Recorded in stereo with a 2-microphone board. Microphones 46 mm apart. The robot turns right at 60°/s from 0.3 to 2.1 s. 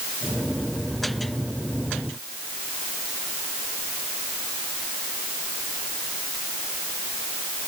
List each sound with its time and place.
Only background noise.